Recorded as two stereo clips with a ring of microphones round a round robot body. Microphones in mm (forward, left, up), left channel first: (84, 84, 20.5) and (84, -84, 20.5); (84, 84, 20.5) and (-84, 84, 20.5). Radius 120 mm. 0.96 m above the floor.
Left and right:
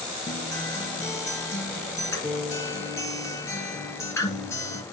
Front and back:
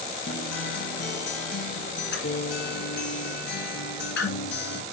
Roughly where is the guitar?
Ahead.